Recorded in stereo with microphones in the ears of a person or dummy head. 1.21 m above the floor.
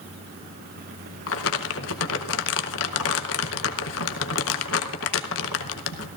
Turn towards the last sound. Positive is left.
turn(degrees=80)